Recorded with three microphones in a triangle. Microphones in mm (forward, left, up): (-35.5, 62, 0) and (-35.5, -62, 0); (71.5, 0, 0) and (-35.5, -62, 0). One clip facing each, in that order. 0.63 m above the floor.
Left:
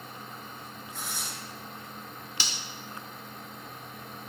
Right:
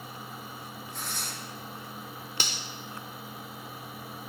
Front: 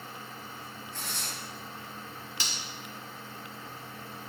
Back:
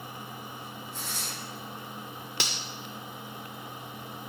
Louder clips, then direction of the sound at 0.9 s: Even, front 1 dB; 5° left.